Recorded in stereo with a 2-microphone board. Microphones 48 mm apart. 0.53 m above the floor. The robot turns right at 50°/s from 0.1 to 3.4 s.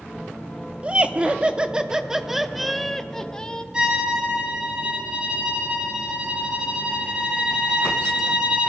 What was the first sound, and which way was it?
Laughter, 25° right (ahead or behind).